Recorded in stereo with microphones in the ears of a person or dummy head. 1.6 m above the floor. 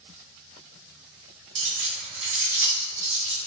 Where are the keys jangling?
65° right (ahead or behind), 1.2 m; by 3.4 s 45° right (ahead or behind), 2.0 m.